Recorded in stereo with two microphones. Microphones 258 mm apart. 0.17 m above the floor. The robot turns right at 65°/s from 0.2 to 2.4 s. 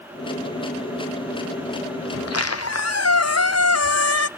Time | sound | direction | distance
2.1 | a squeak | 55° left (ahead or behind) | 0.5 m